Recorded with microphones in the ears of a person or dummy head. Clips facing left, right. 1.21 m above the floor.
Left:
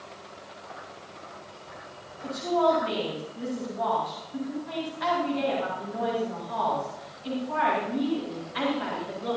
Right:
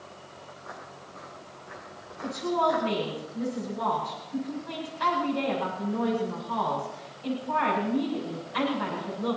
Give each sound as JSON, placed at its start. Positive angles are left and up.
{"t": 0.5, "sound": "footsteps", "side_deg": -80, "distance_m": 6.5}
{"t": 2.2, "sound": "a woman speaking", "side_deg": -60, "distance_m": 9.5}